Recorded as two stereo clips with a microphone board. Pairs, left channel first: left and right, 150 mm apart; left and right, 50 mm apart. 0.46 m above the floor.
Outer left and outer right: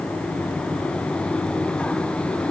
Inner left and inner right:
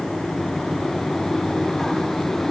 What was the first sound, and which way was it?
Only background noise.